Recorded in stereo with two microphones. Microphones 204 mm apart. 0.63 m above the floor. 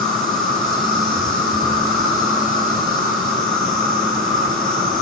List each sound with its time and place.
0.0 s an insect: 20° left (ahead or behind), 3.5 m